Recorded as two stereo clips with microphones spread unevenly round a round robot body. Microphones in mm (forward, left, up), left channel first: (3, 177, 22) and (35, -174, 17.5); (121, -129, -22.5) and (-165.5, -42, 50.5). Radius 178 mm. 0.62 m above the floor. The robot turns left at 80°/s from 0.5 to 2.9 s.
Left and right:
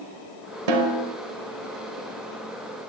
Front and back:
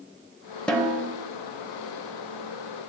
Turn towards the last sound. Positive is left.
turn(degrees=80)